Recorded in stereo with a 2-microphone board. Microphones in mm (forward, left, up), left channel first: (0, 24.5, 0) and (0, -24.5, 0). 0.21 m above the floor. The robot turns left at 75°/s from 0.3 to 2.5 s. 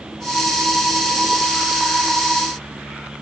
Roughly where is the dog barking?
No dog barking in this recording.